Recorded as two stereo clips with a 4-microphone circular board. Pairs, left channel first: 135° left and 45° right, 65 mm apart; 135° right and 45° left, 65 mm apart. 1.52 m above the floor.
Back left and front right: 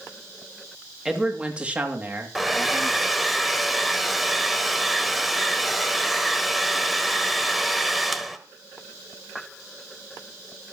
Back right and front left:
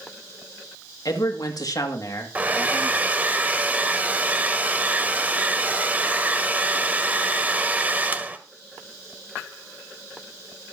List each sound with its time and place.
1.1 s a man speaking: 125° right, 2.5 m; by 3.1 s 90° right, 3 m
2.4 s a hair dryer: 40° left, 1.3 m